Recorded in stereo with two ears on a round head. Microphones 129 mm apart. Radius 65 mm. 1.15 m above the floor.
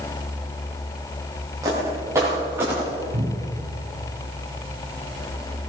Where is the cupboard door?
65° right (ahead or behind), 3.5 m.